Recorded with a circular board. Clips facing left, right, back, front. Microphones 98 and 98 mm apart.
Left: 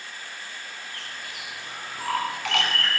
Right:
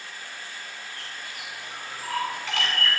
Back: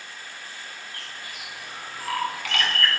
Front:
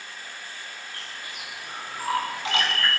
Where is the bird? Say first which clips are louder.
Left 1 dB, even; 65° left, 8.5 m.